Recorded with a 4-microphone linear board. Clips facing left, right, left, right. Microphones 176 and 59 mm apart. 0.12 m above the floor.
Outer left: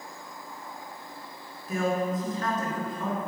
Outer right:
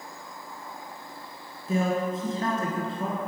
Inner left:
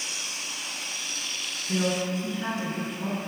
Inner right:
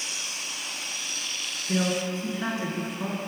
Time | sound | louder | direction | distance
1.7 | a man speaking | outer right 1 dB, even | 30° right (ahead or behind) | 1.4 m